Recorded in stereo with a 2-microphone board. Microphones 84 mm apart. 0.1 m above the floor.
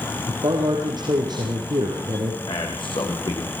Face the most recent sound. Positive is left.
turn(degrees=75)  # may be behind; listen again after turning